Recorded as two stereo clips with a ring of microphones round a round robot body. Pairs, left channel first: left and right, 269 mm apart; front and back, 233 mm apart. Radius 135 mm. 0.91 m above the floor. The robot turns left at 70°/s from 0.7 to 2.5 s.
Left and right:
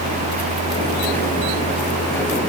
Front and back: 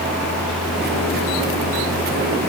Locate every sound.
Only background noise.